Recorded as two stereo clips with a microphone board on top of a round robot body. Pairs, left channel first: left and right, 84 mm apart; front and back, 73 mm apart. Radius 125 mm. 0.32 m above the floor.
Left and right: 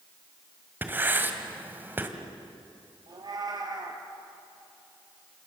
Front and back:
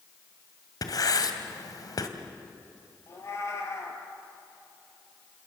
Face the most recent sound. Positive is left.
turn(degrees=-50)